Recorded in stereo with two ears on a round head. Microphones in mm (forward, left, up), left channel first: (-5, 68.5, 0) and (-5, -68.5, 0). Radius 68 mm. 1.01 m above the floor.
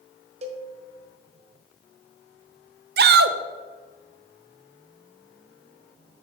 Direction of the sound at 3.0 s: 65° right (ahead or behind).